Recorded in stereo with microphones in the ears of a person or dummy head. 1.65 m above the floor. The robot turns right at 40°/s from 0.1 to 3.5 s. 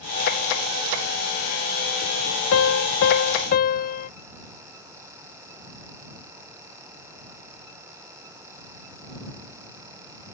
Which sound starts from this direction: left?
A piano, at 2.5 s.